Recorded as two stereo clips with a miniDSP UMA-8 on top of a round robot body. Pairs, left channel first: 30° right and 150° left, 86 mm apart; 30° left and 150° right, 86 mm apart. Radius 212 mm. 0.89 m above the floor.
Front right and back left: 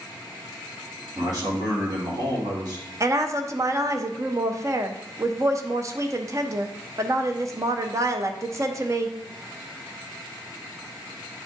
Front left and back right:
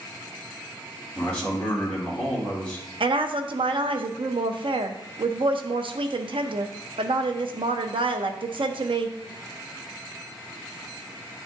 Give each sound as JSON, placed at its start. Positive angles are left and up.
{"t": 1.1, "sound": "a man speaking", "azimuth_deg": 110, "distance_m": 2.5}
{"t": 3.0, "sound": "a woman speaking", "azimuth_deg": -160, "distance_m": 0.8}